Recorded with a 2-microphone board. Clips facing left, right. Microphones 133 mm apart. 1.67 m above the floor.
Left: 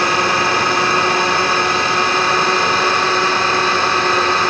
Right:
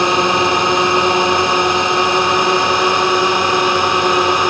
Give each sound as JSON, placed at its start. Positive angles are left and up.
{"t": 0.0, "sound": "a drone", "side_deg": -20}